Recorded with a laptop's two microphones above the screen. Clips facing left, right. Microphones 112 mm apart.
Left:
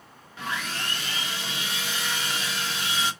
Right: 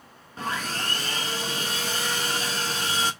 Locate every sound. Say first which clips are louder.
0.4 s sawing: right 2 dB; 40° right (ahead or behind), 1.0 m